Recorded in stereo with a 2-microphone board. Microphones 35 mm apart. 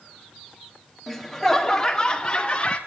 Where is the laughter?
5° right (ahead or behind), 1.9 m; by 2.8 s 30° left (ahead or behind), 2.5 m.